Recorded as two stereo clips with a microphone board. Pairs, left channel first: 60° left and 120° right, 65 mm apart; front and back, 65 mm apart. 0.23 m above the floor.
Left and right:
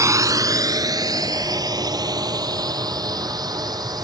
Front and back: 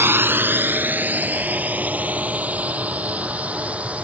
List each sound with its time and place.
0.0 s a drone: 135° right; by 4.0 s 110° right